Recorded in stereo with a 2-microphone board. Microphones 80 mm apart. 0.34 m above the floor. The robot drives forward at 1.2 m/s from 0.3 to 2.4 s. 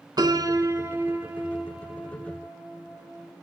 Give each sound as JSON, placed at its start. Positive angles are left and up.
{"t": 0.2, "sound": "a piano", "side_deg": -60, "distance_m": 0.9}